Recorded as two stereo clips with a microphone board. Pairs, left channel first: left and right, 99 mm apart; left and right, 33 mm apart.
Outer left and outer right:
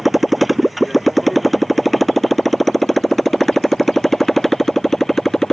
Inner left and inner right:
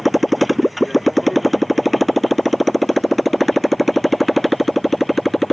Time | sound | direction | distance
0.0 | a motorcycle | centre (ahead or behind) | ?